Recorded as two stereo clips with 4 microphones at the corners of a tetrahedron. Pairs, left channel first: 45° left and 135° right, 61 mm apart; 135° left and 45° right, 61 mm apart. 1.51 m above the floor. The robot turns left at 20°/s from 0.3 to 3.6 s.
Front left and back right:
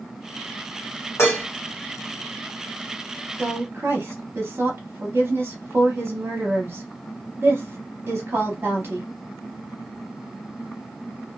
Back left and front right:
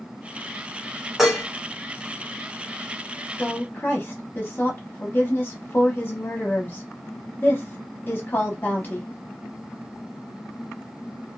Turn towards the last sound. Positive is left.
turn(degrees=-170)